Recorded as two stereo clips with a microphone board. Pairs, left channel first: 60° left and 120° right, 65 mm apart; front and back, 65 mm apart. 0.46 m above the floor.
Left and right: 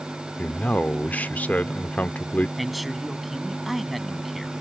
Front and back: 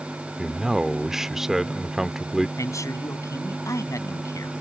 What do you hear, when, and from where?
0.4 s a man speaking: 105° left
2.6 s a man speaking: 30° right